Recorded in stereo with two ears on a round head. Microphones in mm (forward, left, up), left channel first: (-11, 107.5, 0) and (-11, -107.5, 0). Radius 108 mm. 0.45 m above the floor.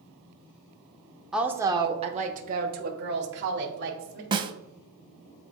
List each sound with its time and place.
1.3 s a woman speaking: centre (ahead or behind), 0.7 m; by 4.2 s 55° right (ahead or behind), 1.8 m
4.3 s a snare drum: 20° right (ahead or behind), 0.7 m